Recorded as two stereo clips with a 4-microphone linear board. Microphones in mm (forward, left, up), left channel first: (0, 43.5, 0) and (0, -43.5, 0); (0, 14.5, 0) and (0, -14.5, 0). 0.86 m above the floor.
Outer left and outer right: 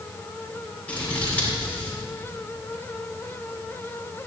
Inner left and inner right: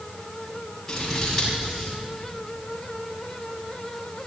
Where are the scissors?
15° left (ahead or behind), 6.5 m.